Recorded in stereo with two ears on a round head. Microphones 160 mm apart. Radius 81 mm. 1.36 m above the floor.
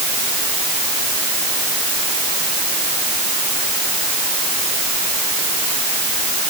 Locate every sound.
Only background noise.